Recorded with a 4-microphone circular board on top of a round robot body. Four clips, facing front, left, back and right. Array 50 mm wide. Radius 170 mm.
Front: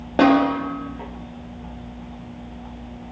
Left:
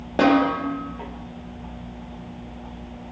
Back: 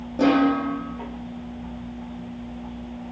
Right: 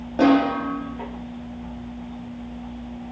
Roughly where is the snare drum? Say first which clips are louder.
Right 1 dB, front 3 dB; ahead.